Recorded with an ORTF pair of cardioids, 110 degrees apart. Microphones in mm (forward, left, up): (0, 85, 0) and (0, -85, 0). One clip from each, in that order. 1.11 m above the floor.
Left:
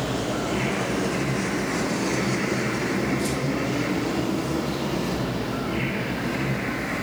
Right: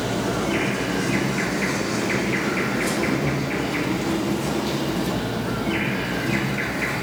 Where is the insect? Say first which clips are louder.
Right 2 dB; 65° right, 3 m.